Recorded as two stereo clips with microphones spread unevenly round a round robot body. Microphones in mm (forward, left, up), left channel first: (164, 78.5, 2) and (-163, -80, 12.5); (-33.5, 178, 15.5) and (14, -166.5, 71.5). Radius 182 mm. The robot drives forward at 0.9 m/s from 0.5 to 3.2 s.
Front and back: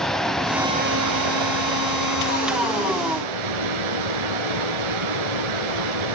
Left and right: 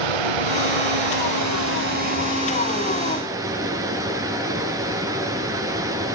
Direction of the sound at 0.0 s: 65° right.